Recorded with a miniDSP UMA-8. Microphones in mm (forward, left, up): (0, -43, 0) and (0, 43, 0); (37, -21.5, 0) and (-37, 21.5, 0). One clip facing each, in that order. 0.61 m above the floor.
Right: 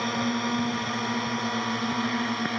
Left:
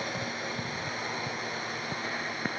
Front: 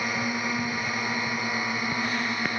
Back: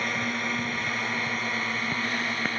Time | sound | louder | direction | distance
0.0 | a drone | right 8 dB, front 1 dB | 110° right | ?